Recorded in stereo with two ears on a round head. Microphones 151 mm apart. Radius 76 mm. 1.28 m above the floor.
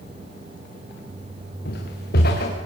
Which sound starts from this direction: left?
Footsteps, at 1.6 s.